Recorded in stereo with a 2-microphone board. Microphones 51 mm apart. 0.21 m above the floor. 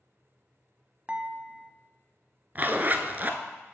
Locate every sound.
1.1 s dishes clattering: 25° right (ahead or behind), 0.7 m
2.5 s a zipper: 35° right (ahead or behind), 0.7 m